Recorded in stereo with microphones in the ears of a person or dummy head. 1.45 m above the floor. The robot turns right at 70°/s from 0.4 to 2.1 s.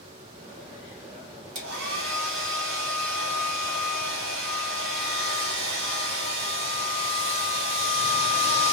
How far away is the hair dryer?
About 1.2 m.